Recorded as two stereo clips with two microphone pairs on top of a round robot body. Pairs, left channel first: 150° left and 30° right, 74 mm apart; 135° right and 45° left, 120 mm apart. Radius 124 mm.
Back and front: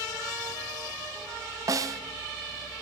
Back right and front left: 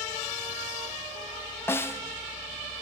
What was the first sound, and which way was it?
A snare drum, 65° right.